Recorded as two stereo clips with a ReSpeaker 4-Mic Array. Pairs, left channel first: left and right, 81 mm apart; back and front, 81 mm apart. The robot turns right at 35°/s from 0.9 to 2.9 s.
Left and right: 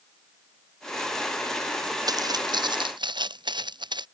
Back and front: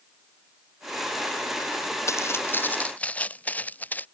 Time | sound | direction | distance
2.1 | footsteps | 125° right | ?